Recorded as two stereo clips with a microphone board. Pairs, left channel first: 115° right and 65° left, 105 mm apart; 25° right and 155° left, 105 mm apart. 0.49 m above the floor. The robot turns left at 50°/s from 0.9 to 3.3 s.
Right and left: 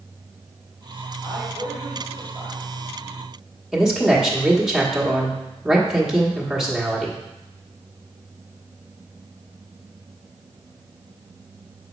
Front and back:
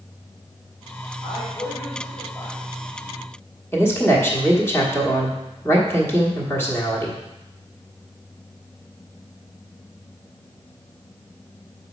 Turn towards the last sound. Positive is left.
turn(degrees=-5)